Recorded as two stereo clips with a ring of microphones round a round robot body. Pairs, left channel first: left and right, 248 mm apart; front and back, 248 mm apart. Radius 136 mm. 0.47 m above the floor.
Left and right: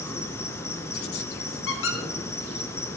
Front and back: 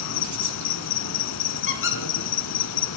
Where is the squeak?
40° left, 2 m.